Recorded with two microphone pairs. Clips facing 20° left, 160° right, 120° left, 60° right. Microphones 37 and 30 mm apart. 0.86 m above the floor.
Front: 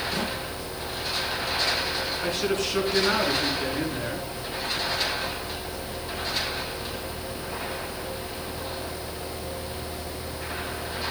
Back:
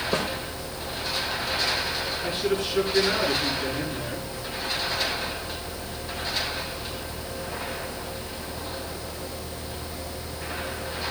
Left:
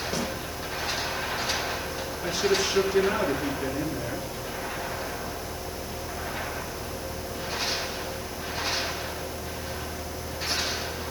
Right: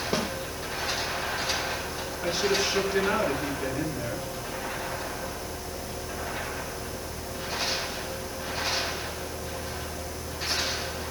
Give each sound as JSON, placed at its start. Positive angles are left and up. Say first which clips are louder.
{"t": 0.1, "sound": "a snare drum", "louder": "back 5 dB, right 3 dB", "azimuth_deg": -120, "distance_m": 2.5}
{"t": 2.2, "sound": "a man speaking", "louder": "even, left 1 dB", "azimuth_deg": 5, "distance_m": 8.0}